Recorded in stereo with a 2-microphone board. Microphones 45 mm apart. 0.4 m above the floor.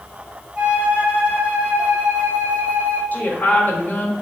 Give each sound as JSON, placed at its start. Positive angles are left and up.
{"t": 0.6, "sound": "a flute", "side_deg": -25, "distance_m": 2.0}
{"t": 3.1, "sound": "a woman speaking", "side_deg": 45, "distance_m": 2.0}